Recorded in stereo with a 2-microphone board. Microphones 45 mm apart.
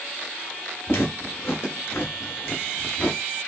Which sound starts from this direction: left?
Footsteps, at 0.9 s.